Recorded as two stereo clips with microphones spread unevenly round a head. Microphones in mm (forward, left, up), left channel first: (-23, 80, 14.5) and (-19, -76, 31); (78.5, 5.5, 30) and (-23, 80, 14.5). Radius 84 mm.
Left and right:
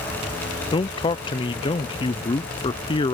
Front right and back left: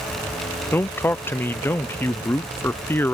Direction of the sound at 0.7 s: 40° left.